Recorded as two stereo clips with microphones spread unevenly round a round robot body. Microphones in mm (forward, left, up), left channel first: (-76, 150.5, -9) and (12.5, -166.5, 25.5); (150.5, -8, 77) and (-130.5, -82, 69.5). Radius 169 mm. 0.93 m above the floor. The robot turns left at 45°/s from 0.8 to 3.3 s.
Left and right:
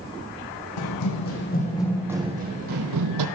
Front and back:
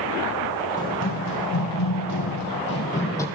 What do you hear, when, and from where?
0.8 s running footsteps: 80° left, 2.5 m; by 3.2 s 65° right, 1.9 m